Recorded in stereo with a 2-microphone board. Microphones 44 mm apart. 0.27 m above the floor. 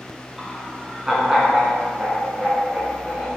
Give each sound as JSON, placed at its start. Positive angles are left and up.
{"t": 0.4, "sound": "laughter", "side_deg": -5, "distance_m": 2.0}